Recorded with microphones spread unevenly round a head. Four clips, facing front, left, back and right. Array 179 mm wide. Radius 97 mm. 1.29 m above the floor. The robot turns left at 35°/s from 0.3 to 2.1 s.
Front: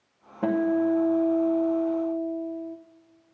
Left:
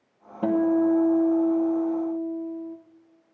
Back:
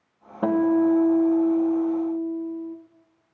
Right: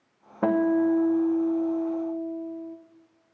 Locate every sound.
0.4 s a guitar: 115° right, 1.3 m; by 2.8 s 175° right, 1.3 m